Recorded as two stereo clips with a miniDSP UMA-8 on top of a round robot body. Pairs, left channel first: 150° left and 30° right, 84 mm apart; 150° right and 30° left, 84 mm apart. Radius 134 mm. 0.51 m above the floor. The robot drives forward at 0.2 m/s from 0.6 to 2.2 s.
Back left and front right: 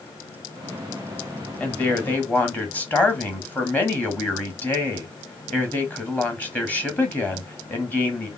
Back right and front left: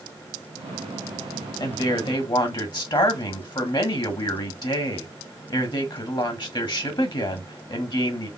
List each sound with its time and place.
1.6 s a woman speaking: 140° right, 1.5 m